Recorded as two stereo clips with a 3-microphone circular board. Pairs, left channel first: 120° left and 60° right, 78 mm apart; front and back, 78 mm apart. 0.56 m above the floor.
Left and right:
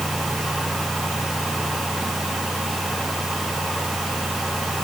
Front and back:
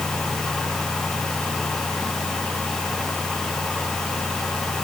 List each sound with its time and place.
Only background noise.